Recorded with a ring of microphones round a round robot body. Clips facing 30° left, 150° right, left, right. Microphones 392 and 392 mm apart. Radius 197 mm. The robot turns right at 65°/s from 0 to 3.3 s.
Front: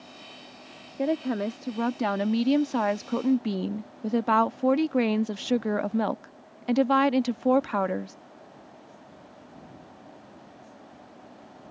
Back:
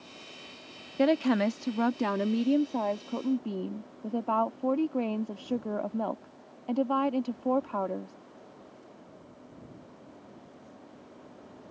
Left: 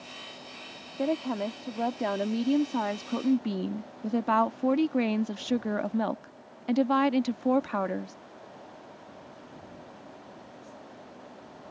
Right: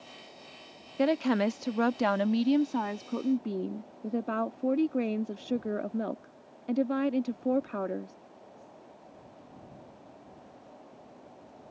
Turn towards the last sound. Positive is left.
turn(degrees=30)